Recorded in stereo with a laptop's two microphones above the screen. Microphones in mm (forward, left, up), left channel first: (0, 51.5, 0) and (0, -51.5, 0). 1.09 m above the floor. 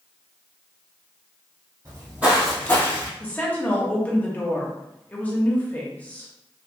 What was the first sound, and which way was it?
Footsteps, 35° right (ahead or behind).